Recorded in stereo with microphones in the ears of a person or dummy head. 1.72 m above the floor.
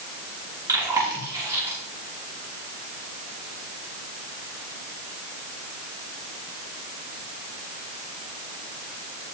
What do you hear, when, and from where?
0.7 s chewing: 20° right (ahead or behind), 4.5 m